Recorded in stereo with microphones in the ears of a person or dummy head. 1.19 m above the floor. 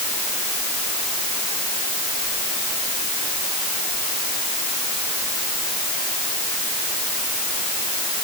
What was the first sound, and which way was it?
Only background noise.